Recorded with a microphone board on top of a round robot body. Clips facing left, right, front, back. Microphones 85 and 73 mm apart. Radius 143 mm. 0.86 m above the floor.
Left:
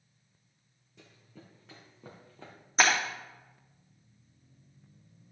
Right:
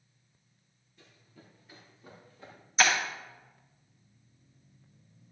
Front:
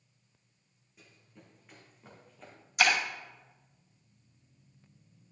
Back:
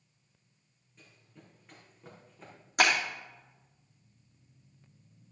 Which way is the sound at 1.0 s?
80° left.